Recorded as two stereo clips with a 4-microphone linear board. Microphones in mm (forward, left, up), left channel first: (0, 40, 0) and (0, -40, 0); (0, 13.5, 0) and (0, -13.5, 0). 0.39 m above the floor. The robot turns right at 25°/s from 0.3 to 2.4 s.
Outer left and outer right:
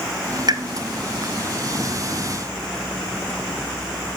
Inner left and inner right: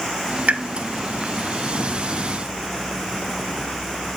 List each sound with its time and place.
0.5 s a pop: 55° right (ahead or behind), 1.0 m; by 0.6 s 50° right (ahead or behind), 1.0 m